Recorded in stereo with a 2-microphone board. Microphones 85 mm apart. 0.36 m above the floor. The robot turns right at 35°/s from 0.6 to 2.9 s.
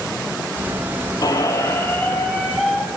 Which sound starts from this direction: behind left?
A squeak, at 1.2 s.